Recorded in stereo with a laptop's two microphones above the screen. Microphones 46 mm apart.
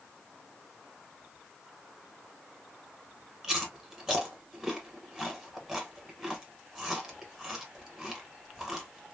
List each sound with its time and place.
3.4 s chewing: 15° right (ahead or behind), 1.1 m